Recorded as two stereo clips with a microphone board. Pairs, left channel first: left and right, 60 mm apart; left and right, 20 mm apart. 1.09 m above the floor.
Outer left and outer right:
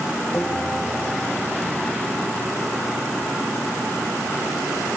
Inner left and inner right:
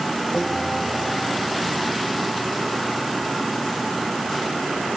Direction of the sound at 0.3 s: 15° left (ahead or behind).